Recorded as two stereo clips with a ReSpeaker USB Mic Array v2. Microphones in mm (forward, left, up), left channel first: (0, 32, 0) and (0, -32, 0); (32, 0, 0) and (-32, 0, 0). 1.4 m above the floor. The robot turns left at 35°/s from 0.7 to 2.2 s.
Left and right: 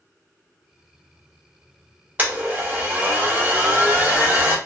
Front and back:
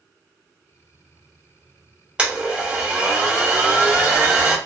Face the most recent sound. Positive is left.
turn(degrees=-125)